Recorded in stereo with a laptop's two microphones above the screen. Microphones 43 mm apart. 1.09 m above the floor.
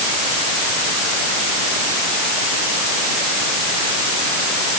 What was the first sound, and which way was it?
Only background noise.